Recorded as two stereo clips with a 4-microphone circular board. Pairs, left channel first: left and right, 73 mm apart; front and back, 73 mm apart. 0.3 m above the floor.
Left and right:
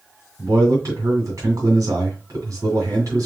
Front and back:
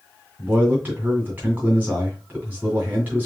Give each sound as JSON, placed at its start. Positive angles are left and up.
{"t": 0.4, "sound": "a man speaking", "azimuth_deg": -120, "distance_m": 2.0}